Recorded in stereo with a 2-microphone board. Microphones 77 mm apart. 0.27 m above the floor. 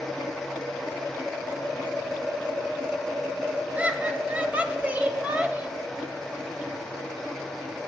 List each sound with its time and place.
3.8 s laughter: 20° right (ahead or behind), 1.2 m